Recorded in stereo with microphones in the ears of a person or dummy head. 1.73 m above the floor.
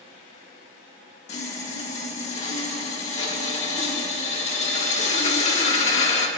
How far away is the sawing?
About 1.2 m.